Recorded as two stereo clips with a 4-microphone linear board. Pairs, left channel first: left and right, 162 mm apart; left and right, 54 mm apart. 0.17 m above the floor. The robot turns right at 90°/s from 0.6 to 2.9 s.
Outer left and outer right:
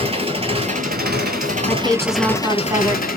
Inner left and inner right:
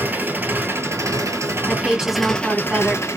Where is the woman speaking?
15° left (ahead or behind), 1.0 m; by 3.0 s 20° right (ahead or behind), 1.0 m.